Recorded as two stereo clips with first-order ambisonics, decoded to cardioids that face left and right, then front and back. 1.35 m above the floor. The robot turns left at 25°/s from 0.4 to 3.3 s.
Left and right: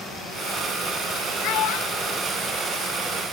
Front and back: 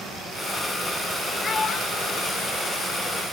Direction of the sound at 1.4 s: 70° left.